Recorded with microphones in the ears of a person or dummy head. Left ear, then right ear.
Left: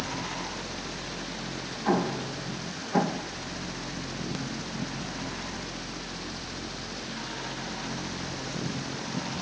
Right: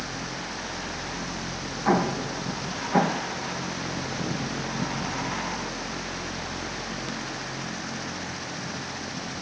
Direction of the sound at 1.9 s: 25° right (ahead or behind).